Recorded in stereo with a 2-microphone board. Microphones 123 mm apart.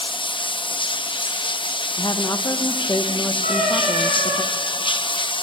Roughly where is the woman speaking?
Left.